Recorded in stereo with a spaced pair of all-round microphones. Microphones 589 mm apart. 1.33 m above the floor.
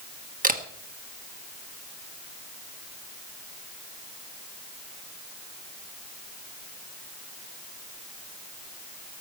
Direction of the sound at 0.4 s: 15° right (ahead or behind).